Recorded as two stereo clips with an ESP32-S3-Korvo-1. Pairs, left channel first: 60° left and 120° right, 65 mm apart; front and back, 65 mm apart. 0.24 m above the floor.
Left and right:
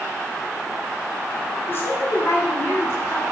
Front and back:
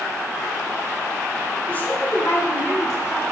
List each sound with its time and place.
1.7 s a woman speaking: 50° left, 1.5 m; by 3.2 s 20° left, 3 m